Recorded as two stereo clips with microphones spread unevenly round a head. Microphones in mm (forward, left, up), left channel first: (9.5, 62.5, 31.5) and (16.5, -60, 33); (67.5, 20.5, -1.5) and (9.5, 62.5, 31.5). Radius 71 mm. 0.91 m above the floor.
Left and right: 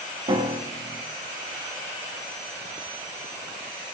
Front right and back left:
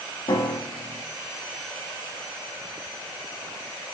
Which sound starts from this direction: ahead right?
A piano, at 0.3 s.